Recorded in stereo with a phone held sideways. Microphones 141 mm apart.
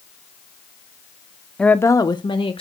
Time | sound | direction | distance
1.6 | a woman speaking | 5° left (ahead or behind) | 0.7 m